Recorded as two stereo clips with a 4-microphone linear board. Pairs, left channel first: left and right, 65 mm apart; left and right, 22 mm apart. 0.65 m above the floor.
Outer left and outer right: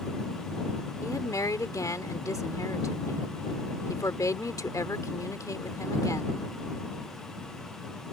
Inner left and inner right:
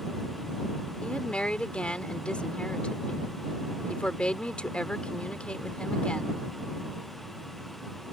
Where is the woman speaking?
60° left (ahead or behind).